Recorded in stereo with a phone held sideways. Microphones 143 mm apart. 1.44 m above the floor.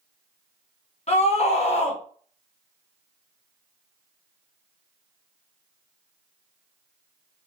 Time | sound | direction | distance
1.1 | a scream | 50° left (ahead or behind) | 1.1 m